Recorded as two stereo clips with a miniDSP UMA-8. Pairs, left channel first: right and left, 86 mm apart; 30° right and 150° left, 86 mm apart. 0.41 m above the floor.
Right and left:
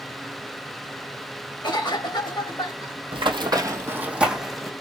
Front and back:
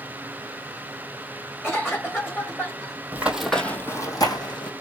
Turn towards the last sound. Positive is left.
turn(degrees=0)